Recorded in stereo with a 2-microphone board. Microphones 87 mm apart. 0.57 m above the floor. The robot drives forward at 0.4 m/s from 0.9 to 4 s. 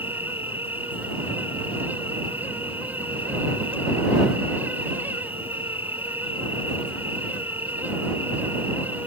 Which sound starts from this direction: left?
An insect, at 0.0 s.